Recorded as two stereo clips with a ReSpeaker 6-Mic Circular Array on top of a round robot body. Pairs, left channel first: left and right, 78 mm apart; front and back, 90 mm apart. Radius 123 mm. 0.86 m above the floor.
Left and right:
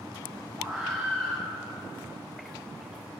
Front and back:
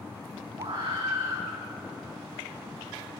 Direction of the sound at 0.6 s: Straight behind.